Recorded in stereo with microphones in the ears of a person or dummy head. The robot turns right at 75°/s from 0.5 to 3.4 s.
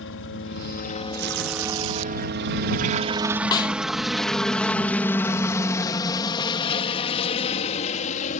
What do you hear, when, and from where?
0.0 s a helicopter: 60° left (ahead or behind); by 8.4 s 40° left (ahead or behind)
1.1 s tearing paper: 130° right; by 2.1 s 55° right
3.5 s a snare drum: 25° left (ahead or behind)